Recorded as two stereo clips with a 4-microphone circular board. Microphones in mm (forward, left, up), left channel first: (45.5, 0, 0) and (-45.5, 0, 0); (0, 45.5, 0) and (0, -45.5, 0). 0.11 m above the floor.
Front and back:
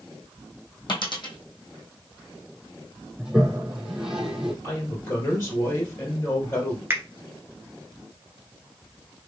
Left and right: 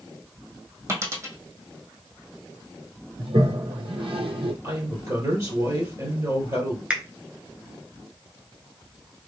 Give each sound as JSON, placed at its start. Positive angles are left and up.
{"t": 0.9, "sound": "a dropped coin", "azimuth_deg": -30, "distance_m": 1.4}
{"t": 3.2, "sound": "a toilet flushing", "azimuth_deg": -95, "distance_m": 0.9}
{"t": 4.6, "sound": "a woman speaking", "azimuth_deg": -55, "distance_m": 2.5}
{"t": 6.9, "sound": "a finger snap", "azimuth_deg": -155, "distance_m": 1.0}